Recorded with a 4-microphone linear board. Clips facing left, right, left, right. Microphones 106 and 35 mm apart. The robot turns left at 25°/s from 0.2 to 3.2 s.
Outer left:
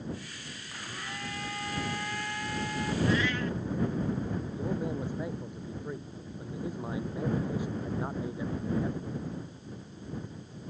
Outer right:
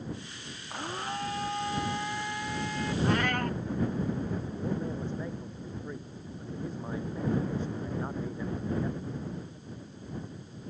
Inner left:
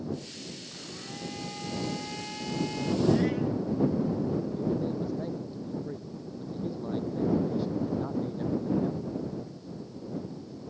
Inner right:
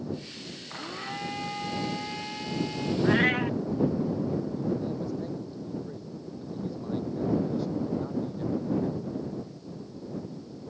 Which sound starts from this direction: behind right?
A blender, at 0.7 s.